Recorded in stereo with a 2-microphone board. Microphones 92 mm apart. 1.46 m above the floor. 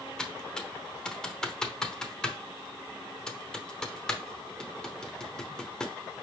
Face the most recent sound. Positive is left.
turn(degrees=5)  # may be behind; listen again after turning